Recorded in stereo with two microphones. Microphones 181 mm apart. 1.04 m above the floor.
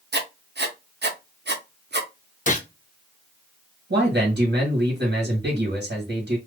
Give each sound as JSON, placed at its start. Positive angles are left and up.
{"t": 0.1, "sound": "writing", "side_deg": -70, "distance_m": 0.6}
{"t": 2.5, "sound": "a gunshot", "side_deg": 45, "distance_m": 0.6}
{"t": 3.9, "sound": "a man speaking", "side_deg": -75, "distance_m": 1.5}